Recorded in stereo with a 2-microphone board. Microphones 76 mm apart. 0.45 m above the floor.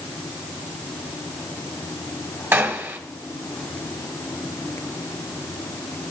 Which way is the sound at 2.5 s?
30° right (ahead or behind).